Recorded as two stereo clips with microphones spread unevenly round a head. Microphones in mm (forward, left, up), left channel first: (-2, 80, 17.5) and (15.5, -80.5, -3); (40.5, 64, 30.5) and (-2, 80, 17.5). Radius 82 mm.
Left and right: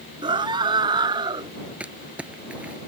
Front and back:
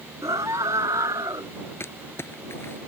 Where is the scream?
150° right.